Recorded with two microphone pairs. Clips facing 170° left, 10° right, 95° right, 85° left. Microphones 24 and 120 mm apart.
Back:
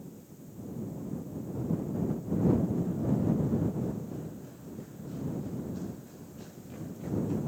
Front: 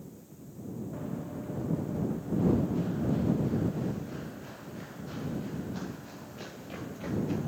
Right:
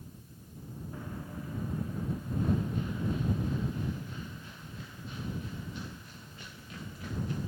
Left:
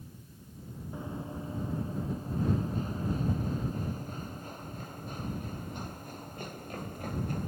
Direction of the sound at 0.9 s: 15° left.